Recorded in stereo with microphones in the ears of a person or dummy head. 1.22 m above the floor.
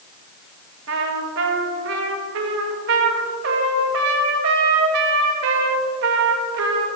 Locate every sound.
0.9 s a trumpet: 65° right (ahead or behind), 1.6 m